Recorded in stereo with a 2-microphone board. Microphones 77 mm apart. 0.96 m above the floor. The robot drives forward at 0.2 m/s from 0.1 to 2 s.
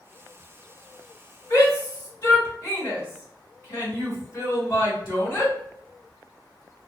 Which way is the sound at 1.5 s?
35° left (ahead or behind).